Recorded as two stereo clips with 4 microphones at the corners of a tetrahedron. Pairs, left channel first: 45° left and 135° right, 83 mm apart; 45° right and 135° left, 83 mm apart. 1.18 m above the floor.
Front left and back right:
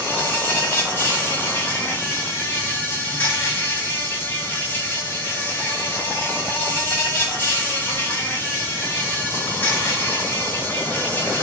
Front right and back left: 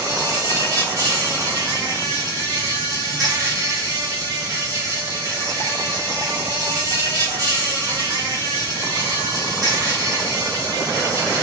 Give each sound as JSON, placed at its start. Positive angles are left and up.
{"t": 0.0, "sound": "an insect", "azimuth_deg": 105, "distance_m": 1.0}